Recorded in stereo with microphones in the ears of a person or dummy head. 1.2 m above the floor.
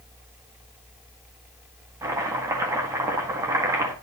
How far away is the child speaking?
I don't hear a child speaking.